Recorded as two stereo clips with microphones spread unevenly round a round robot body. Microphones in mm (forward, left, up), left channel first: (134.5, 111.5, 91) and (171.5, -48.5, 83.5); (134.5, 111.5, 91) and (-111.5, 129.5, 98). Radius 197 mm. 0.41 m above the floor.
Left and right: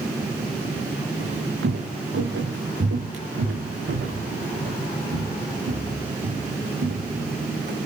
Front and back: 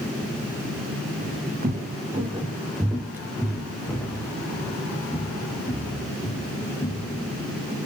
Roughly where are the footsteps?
Behind right.